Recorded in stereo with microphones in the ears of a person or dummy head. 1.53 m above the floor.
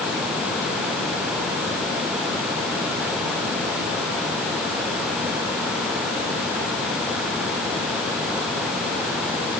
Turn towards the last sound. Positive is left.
No sound to turn to.